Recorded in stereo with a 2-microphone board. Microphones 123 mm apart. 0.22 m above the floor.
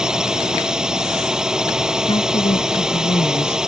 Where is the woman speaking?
50° left (ahead or behind).